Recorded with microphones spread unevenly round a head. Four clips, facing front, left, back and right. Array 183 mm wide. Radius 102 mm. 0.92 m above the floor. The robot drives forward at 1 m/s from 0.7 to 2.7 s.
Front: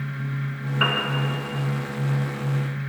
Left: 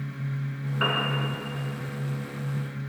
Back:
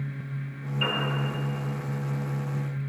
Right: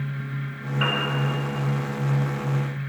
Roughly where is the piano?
Ahead.